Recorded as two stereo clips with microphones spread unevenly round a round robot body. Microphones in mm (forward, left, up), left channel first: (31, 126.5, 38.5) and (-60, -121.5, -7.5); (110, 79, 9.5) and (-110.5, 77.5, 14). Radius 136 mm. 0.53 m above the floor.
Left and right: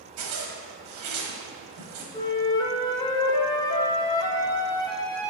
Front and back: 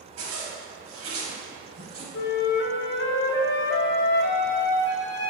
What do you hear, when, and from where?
0.2 s a zipper: 135° right, 1.1 m
2.1 s a flute: 10° right, 0.5 m